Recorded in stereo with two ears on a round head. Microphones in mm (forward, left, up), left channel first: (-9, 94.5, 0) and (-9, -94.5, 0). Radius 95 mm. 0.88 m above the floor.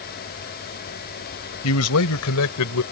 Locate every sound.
1.6 s a man speaking: 80° left